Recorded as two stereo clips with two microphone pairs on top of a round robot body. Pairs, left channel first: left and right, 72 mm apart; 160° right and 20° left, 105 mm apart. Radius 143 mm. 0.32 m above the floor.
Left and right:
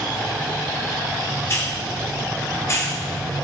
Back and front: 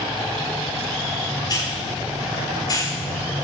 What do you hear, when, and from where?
1.5 s a hiss: 150° left, 1.7 m